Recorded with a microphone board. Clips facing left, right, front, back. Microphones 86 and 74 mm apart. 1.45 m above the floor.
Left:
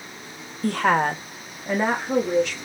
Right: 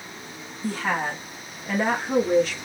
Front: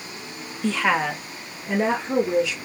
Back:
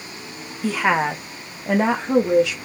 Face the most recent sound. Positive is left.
turn(degrees=-170)